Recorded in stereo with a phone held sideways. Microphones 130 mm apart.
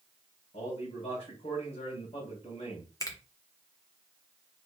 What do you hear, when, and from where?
0.5 s a man speaking: 55° left (ahead or behind), 2.5 m
3.0 s a finger snap: 25° left (ahead or behind), 0.8 m